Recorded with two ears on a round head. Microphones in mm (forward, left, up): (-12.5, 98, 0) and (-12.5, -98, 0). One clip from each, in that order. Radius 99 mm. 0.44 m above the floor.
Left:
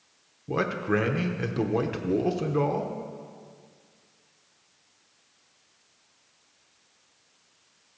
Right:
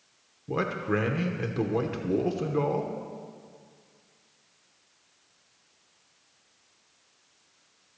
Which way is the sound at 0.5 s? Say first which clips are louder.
Left 2 dB; 10° left (ahead or behind).